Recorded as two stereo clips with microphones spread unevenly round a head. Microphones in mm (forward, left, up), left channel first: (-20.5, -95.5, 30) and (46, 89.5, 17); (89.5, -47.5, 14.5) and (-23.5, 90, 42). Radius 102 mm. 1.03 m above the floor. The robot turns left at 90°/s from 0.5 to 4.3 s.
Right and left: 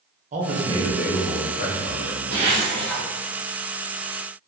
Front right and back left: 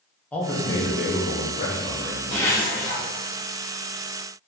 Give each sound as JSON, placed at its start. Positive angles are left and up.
{"t": 0.3, "sound": "a man speaking", "azimuth_deg": 25, "distance_m": 0.7}
{"t": 2.3, "sound": "a zipper", "azimuth_deg": 25, "distance_m": 1.2}